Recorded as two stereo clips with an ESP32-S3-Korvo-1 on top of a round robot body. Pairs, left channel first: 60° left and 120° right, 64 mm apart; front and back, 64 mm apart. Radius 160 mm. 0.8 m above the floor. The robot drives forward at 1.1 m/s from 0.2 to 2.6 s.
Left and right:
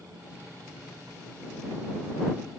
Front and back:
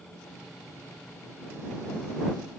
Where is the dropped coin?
I don't hear a dropped coin.